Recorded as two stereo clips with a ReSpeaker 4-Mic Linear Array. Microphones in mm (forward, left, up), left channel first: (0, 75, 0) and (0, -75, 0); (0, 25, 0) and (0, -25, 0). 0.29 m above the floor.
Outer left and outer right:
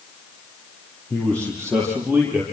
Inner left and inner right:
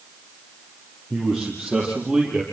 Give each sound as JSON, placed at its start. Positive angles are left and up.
{"t": 1.1, "sound": "a man speaking", "side_deg": 10, "distance_m": 7.5}